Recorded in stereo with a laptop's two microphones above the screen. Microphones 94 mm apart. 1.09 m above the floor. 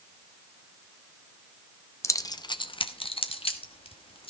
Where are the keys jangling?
30° left (ahead or behind), 0.7 m; by 4.3 s 75° left (ahead or behind), 1.5 m.